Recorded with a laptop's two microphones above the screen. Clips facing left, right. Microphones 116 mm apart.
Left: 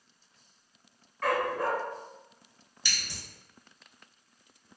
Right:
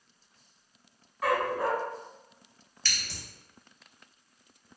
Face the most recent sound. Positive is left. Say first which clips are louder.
# even
turn(degrees=15)  # may be behind; listen again after turning